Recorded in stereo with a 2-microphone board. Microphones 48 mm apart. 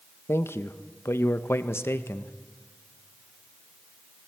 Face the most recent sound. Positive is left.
turn(degrees=65)  # may be behind; listen again after turning